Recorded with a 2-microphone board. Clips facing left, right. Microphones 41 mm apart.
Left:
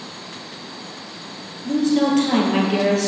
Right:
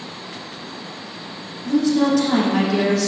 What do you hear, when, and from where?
1.6 s a woman speaking: 45° left (ahead or behind), 2.5 m